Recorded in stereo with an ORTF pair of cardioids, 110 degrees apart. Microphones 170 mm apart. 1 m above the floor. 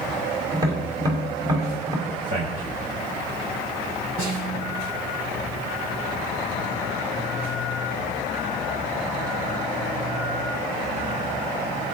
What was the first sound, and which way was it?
Tapping, 25° right.